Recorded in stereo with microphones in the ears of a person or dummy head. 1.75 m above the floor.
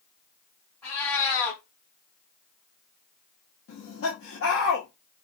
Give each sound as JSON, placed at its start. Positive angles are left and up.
{"t": 0.8, "sound": "a cat meowing", "side_deg": 10, "distance_m": 2.5}
{"t": 3.7, "sound": "laughter", "side_deg": 75, "distance_m": 1.5}